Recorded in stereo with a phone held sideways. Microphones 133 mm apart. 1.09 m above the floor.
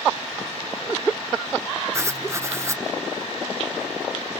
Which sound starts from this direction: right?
Writing, at 1.9 s.